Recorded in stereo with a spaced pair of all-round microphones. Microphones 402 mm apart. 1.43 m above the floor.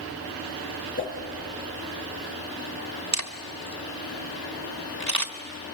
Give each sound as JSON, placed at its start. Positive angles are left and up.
{"t": 1.0, "sound": "a whoosh", "side_deg": 30, "distance_m": 6.0}
{"t": 3.1, "sound": "a camera shutter", "side_deg": -45, "distance_m": 1.5}